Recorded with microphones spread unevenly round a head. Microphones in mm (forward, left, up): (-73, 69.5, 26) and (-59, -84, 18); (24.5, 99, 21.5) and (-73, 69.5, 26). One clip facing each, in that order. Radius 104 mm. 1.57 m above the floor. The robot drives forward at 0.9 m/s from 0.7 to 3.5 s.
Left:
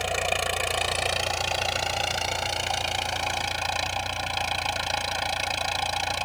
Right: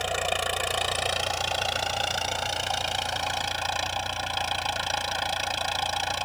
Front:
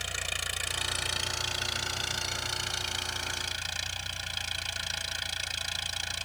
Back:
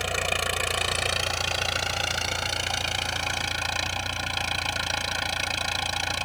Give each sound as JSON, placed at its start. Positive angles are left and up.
{"t": 0.0, "sound": "an engine running", "azimuth_deg": 180}